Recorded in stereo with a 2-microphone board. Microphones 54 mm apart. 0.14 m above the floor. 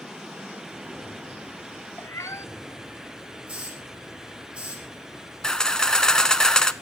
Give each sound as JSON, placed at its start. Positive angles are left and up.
{"t": 2.0, "sound": "a cat meowing", "side_deg": 60, "distance_m": 0.8}
{"t": 3.5, "sound": "a hiss", "side_deg": -25, "distance_m": 6.5}
{"t": 5.4, "sound": "a camera shutter", "side_deg": 15, "distance_m": 0.6}